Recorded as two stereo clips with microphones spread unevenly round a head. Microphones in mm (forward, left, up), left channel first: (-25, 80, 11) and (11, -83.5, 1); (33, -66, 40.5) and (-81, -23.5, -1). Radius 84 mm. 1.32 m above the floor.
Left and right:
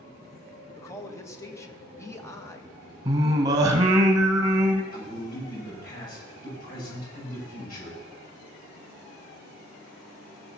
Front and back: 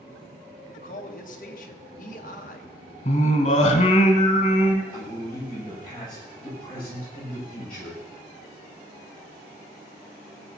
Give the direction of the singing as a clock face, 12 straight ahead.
12 o'clock.